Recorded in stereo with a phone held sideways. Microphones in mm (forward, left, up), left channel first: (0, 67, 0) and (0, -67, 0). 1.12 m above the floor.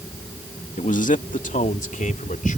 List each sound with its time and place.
0.8 s a man speaking: 70° left (ahead or behind); by 2.6 s 80° left